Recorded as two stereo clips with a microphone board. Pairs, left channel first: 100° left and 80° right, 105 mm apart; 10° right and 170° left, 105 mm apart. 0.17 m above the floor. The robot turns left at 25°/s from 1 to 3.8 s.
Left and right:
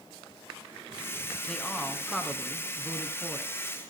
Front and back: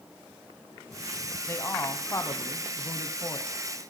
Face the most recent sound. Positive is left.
turn(degrees=-30)